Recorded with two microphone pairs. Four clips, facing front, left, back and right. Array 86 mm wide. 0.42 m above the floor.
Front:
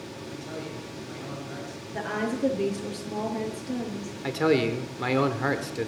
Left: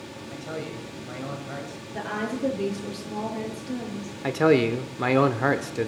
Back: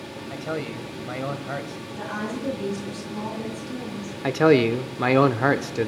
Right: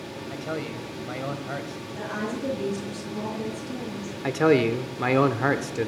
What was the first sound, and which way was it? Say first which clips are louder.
A man speaking: right 2 dB, back 8 dB; 155° right.